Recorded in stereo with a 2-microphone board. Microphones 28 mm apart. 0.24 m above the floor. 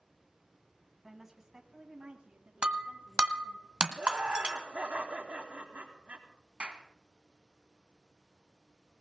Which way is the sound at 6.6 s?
45° right (ahead or behind).